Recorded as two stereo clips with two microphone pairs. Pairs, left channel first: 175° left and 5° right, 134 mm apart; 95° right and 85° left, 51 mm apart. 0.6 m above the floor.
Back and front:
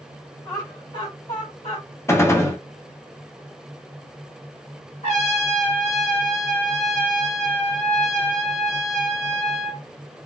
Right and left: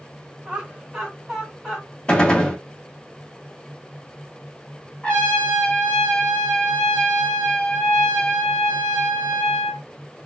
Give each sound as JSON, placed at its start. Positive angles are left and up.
{"t": 0.5, "sound": "laughter", "azimuth_deg": 140, "distance_m": 1.5}
{"t": 2.1, "sound": "a gunshot", "azimuth_deg": -140, "distance_m": 0.6}
{"t": 5.0, "sound": "a trumpet", "azimuth_deg": -165, "distance_m": 1.4}